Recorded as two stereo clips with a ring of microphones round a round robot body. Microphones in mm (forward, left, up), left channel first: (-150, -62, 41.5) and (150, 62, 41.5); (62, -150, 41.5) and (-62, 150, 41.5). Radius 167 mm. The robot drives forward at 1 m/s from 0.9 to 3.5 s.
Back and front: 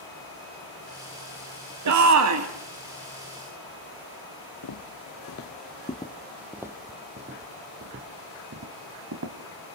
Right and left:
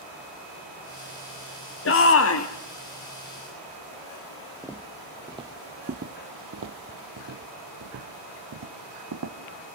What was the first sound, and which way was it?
A shout, 15° right.